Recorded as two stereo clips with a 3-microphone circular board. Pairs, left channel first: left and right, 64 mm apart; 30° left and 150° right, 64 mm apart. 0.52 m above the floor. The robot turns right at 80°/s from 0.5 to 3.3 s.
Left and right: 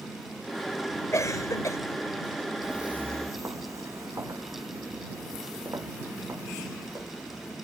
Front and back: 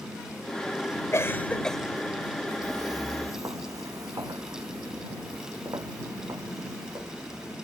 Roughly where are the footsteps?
Behind.